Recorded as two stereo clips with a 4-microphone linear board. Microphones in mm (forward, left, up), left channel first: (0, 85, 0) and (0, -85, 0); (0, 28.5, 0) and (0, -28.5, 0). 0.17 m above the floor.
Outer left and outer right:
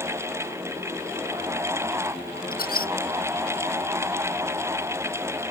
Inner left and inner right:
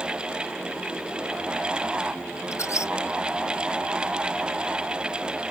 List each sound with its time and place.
2.5 s a squeak: 60° left (ahead or behind)